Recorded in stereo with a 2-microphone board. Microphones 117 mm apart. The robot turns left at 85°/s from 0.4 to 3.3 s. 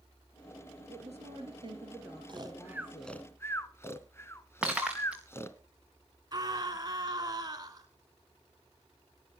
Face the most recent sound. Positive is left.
turn(degrees=-35)  # may be behind; listen again after turning